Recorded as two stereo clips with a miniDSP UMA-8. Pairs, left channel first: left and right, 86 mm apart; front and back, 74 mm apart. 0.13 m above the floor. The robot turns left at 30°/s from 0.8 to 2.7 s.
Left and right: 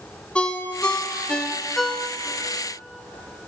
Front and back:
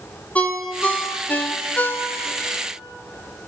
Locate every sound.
0.3 s a ringtone: 35° left, 0.7 m; by 2.4 s 15° right, 0.7 m